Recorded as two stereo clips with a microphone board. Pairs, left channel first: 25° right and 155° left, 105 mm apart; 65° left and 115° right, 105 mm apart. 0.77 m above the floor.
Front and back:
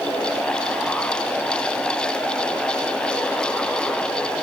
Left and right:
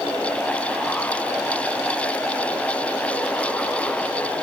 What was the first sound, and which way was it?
Only background noise.